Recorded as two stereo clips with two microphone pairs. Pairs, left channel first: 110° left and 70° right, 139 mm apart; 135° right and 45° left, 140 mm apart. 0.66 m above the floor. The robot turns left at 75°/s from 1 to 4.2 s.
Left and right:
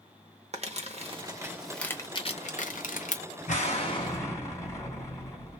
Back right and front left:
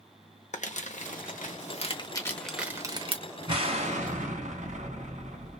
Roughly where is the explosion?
Left.